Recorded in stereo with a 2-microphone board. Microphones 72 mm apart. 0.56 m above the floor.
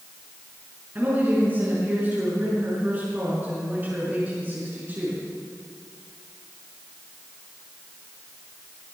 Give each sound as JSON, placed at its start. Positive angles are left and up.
{"t": 0.9, "sound": "a woman speaking", "side_deg": -25, "distance_m": 6.5}